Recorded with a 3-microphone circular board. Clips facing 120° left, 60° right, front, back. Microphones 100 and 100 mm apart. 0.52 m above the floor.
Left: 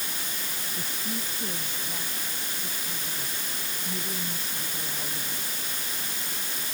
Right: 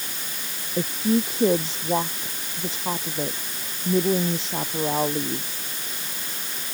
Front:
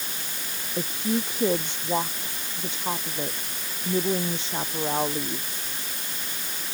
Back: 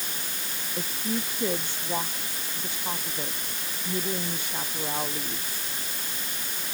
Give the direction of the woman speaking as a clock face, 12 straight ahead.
2 o'clock.